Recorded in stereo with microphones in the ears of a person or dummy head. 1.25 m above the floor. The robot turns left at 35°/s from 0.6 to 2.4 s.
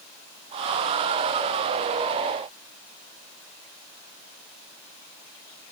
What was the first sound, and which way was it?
Only background noise.